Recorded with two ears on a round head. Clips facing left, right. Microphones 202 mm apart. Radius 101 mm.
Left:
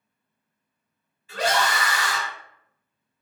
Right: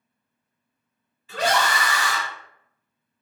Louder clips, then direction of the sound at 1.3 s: Right 1 dB; 60° right (ahead or behind).